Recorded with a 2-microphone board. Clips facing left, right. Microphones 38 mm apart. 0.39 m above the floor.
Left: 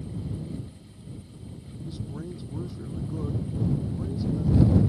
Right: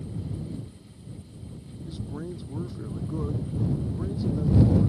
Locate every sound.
1.9 s a man speaking: 10° right (ahead or behind); by 4.9 s 15° right (ahead or behind)